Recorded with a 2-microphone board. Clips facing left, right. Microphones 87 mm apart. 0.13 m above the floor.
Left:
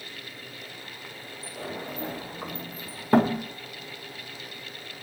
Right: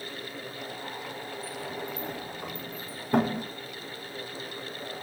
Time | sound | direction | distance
1.4 | a sliding door | 75° left (ahead or behind) | 3.5 m